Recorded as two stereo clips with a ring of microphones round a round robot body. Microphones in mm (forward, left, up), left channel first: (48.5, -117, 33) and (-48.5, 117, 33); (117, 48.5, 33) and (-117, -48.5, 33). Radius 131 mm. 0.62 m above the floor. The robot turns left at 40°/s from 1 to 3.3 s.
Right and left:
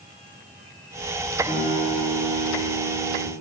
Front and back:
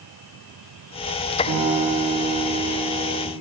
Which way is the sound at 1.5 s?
170° right.